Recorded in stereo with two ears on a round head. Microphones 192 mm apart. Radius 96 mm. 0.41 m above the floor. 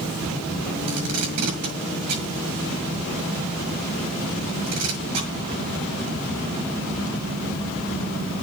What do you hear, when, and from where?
0.9 s tape being pulled: 80° right, 6.5 m